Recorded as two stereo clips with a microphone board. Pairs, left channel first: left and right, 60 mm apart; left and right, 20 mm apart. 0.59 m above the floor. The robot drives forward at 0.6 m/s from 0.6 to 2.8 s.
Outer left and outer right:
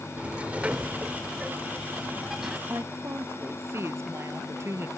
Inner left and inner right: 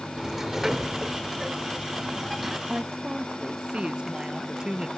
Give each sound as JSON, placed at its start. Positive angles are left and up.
{"t": 0.2, "sound": "a sliding door", "side_deg": -25}
{"t": 2.7, "sound": "a woman speaking", "side_deg": -50}